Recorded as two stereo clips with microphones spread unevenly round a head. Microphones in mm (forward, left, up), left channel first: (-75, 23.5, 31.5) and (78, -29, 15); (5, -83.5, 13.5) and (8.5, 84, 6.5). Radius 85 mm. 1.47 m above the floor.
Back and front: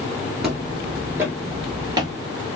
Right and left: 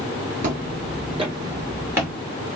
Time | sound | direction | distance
0.4 | footsteps | 75° left | 1.8 m